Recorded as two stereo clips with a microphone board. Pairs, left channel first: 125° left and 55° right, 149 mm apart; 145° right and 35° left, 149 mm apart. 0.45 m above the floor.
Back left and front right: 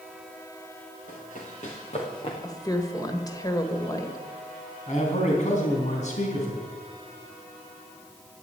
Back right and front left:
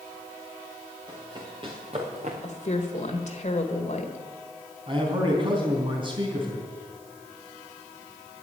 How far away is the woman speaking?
About 1.7 m.